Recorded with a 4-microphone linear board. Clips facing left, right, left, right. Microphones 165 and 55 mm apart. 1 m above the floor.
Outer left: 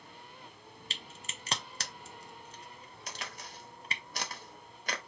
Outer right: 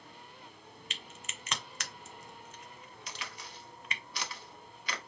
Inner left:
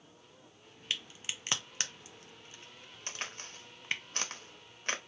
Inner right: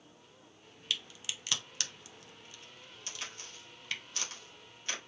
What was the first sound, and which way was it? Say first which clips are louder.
A crack: outer left 1 dB, even; 35° left (ahead or behind).